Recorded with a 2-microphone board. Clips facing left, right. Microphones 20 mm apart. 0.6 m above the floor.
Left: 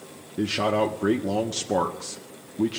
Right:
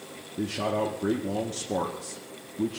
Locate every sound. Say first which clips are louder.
0.4 s a man speaking: left 5 dB; 40° left (ahead or behind), 0.8 m